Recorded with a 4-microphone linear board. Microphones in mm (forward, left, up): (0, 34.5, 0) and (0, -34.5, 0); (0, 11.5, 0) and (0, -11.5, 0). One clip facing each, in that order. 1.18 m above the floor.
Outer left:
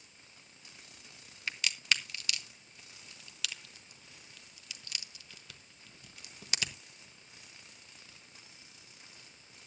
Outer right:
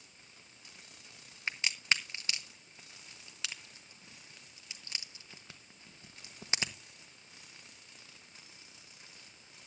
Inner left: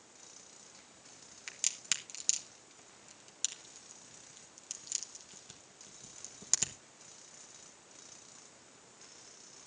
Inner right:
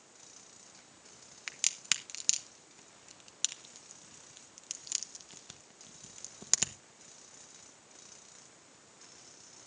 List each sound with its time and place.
1.5 s a crack: 25° right (ahead or behind), 1.0 m